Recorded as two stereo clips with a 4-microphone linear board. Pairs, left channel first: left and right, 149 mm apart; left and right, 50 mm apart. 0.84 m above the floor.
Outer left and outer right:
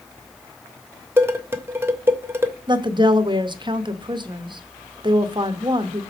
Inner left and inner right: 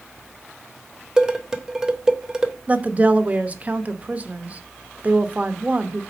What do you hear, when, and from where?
1.2 s dishes clattering: 15° right (ahead or behind), 0.9 m
2.7 s a woman speaking: 30° right (ahead or behind), 0.8 m